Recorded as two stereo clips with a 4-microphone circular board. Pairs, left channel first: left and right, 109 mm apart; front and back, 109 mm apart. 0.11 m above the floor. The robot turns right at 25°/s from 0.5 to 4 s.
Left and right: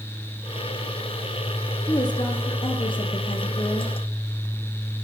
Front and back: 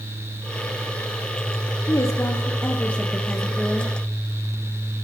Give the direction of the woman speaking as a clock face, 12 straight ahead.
10 o'clock.